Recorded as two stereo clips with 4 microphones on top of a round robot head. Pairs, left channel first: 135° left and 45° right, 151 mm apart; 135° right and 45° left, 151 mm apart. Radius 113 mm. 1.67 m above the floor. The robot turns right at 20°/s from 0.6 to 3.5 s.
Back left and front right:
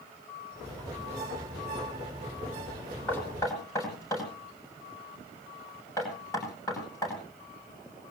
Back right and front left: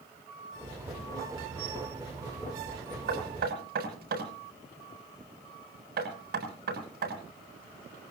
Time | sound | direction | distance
3.1 | knocking | 60° left | 9.5 m